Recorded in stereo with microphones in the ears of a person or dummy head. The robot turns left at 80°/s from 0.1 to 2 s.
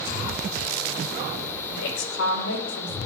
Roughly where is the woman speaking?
Left.